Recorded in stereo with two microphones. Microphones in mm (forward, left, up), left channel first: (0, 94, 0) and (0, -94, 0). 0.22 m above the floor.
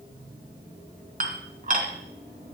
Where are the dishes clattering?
50° right (ahead or behind), 1.6 m.